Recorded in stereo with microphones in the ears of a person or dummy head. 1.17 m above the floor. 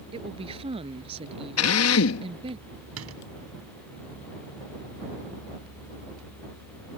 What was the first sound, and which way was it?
A woman speaking, 35° right (ahead or behind).